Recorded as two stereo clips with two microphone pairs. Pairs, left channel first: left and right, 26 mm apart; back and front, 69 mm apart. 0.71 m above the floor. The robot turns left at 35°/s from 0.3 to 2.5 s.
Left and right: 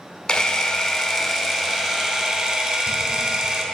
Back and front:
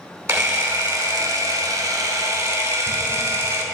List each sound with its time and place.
0.3 s a camera shutter: 40° left, 0.9 m; by 3.6 s 35° right, 0.9 m